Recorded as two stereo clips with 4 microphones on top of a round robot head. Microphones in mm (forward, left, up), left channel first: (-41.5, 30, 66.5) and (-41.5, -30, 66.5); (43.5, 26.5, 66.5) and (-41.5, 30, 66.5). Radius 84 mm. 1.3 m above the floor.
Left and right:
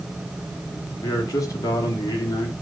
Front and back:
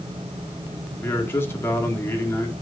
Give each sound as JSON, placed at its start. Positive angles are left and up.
{"t": 1.0, "sound": "a man speaking", "azimuth_deg": 60, "distance_m": 2.0}